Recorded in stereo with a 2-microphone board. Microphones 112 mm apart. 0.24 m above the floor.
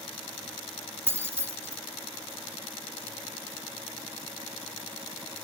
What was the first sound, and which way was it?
Keys jangling, 20° right (ahead or behind).